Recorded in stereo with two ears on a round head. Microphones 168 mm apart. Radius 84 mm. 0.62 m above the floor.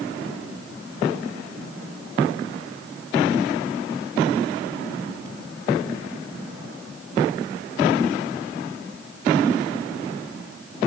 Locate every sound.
Only background noise.